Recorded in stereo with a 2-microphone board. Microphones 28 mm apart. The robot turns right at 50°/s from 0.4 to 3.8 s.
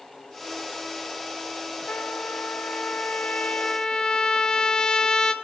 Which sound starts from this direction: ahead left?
A trumpet, at 1.9 s.